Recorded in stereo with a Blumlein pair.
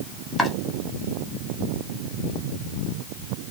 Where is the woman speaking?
I don't hear a woman speaking.